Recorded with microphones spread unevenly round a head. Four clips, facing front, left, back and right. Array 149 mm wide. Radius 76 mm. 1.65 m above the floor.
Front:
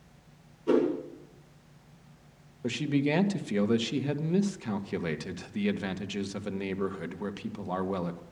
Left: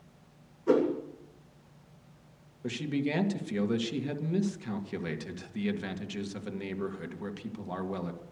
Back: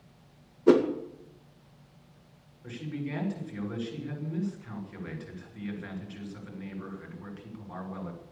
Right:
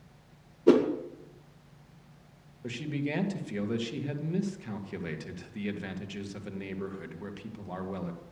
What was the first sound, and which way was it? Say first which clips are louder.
A whoosh: right 4 dB, back 4 dB; 135° right.